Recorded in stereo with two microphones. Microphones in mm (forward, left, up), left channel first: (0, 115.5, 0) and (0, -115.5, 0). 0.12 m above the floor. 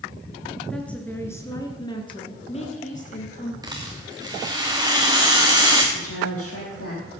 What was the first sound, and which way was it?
A woman speaking, 5° left (ahead or behind).